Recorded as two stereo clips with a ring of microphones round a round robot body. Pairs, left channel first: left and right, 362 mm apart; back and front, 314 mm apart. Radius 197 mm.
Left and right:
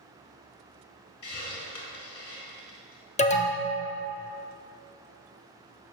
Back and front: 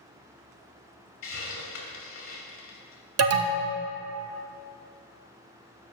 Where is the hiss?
135° left, 2 m.